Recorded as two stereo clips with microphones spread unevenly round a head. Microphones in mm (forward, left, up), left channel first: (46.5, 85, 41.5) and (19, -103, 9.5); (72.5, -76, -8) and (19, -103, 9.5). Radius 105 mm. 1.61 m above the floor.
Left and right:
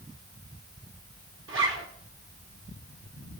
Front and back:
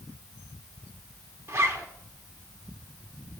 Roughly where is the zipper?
Behind right.